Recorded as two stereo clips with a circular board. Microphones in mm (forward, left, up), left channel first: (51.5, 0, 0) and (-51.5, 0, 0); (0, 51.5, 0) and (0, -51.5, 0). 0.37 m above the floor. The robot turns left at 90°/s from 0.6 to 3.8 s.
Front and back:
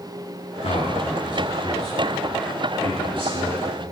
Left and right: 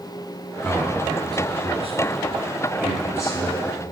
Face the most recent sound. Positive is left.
turn(degrees=100)